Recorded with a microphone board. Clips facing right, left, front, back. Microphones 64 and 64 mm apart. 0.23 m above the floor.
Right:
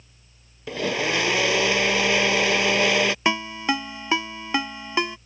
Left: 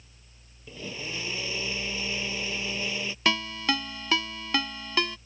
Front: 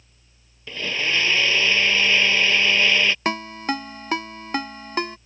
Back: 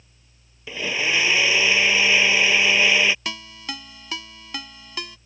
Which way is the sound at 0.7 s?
100° right.